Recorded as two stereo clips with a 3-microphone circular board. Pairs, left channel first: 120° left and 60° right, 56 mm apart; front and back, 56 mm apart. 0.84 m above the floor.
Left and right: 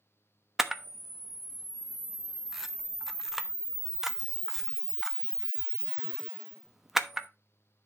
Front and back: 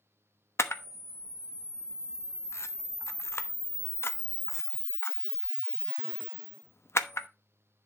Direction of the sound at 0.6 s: 25° left.